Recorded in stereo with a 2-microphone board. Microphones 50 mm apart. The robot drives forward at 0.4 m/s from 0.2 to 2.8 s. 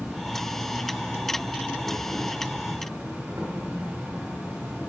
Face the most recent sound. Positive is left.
turn(degrees=-30)  # may be behind; listen again after turning